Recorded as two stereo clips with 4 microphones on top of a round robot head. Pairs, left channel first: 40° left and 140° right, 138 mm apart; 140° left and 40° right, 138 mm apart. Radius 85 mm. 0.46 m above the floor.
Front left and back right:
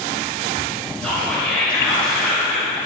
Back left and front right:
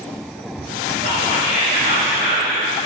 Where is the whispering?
120° left, 2.5 m.